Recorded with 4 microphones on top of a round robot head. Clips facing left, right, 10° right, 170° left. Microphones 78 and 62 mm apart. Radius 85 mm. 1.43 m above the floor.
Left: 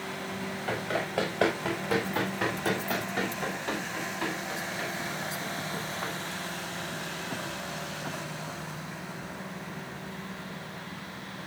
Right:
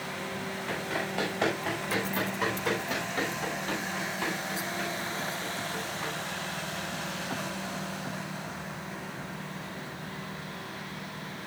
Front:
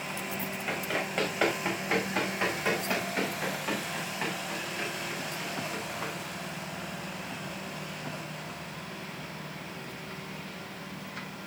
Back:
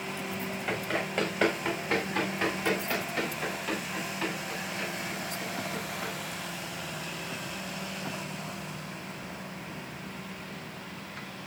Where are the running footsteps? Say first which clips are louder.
Left 3 dB, back 1 dB; 80° left, 7 m; by 6.1 s 45° left, 10 m.